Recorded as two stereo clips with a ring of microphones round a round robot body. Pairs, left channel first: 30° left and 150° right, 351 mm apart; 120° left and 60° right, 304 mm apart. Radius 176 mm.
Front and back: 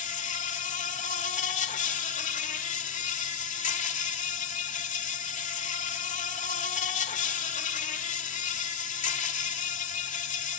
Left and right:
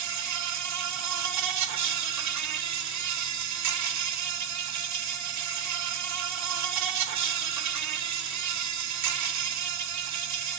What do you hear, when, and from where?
0.0 s an insect: 40° right, 1.7 m